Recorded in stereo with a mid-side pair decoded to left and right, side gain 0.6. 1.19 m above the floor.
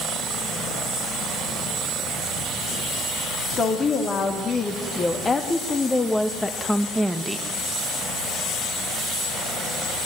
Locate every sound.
3.6 s a woman speaking: 40° left, 3 m; by 7.5 s 10° right, 1.2 m